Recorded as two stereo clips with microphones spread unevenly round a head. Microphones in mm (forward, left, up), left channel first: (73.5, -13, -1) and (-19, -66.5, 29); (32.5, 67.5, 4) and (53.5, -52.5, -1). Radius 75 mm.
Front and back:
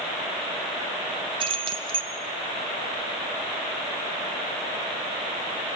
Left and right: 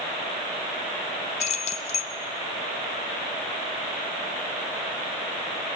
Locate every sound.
1.4 s keys jangling: 150° left, 0.8 m